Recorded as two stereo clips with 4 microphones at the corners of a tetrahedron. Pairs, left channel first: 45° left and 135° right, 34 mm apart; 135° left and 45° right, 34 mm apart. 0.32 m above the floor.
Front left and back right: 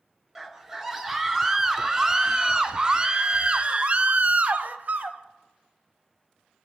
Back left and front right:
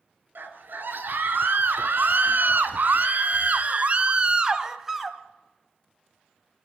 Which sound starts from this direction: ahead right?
A scream, at 0.3 s.